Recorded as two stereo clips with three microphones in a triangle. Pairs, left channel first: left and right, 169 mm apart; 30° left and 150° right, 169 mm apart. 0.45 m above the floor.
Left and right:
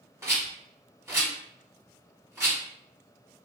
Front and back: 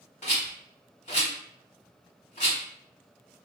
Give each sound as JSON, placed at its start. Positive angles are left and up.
{"t": 0.2, "sound": "a rattle", "azimuth_deg": -15, "distance_m": 1.1}